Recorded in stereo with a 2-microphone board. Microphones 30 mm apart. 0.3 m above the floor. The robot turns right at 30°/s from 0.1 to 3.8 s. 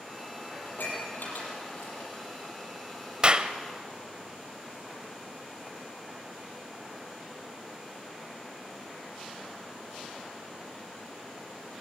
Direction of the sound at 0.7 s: 75° left (ahead or behind).